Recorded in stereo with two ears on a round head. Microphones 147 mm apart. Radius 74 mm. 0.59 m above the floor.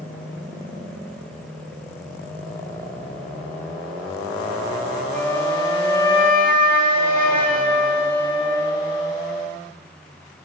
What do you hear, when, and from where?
5.1 s a flute: 10° left (ahead or behind), 4.5 m